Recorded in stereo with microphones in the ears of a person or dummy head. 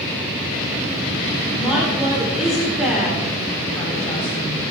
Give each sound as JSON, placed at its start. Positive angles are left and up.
{"t": 1.6, "sound": "a woman speaking", "side_deg": -10, "distance_m": 4.0}